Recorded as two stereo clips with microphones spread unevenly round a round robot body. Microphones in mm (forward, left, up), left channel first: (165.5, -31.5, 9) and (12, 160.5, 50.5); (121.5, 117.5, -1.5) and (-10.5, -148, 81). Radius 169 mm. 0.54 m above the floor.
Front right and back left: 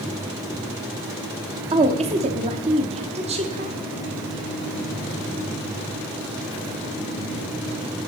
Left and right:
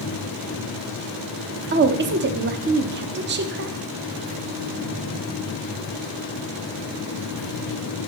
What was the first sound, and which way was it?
A woman speaking, 170° right.